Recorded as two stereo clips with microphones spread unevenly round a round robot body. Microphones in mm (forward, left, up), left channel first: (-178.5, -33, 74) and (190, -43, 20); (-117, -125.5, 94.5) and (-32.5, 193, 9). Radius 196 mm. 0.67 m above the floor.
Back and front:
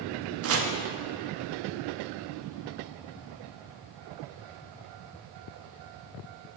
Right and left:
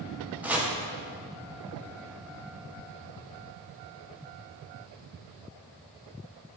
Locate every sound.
0.4 s chopping: 10° left, 0.8 m